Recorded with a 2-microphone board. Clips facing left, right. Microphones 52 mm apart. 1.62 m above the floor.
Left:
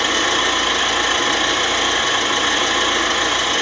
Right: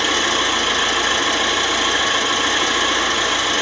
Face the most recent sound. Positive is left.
turn(degrees=35)  # may be behind; listen again after turning